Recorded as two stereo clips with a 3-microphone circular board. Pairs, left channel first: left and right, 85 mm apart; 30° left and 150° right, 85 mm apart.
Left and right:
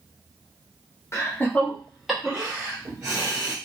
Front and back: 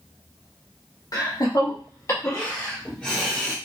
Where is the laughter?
45° left, 1.0 m; by 3.5 s 55° right, 1.3 m.